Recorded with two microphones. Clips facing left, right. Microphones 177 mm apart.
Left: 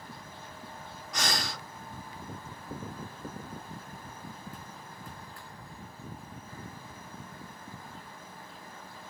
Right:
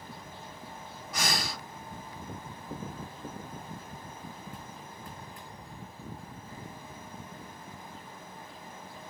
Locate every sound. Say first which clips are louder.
1.1 s breathing: even; 5° right (ahead or behind), 1.6 m